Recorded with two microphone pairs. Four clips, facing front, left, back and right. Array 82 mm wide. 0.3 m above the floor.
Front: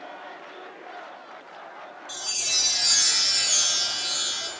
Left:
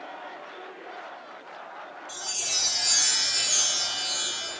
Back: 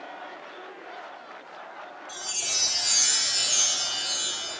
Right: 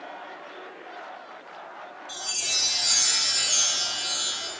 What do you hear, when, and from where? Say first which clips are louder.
2.1 s a chime: right 1 dB, front 3 dB; 5° right, 1.1 m